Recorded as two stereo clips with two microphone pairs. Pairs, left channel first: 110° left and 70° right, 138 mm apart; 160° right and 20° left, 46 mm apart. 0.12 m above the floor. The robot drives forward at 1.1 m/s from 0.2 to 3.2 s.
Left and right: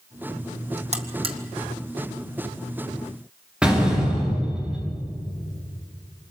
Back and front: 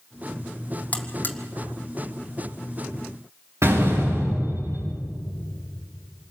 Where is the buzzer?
105° right, 1.7 m; by 1.4 s 120° right, 1.9 m.